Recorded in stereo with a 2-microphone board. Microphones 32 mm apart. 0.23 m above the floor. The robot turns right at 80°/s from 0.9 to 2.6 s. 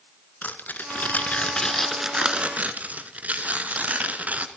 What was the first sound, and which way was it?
Tearing paper, 100° left.